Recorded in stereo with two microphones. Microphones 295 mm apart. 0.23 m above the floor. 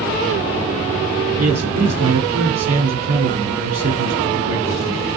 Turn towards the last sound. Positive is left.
turn(degrees=-60)  # may be behind; listen again after turning